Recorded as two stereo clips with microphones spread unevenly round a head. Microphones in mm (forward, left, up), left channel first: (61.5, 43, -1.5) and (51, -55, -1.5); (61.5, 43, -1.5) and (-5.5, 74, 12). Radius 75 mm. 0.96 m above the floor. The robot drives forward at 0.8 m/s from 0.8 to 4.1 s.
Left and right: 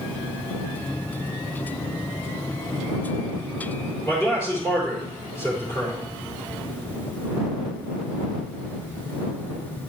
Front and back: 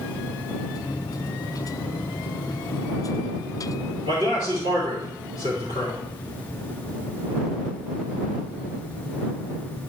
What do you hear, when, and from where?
4.0 s a man speaking: 160° left, 3.5 m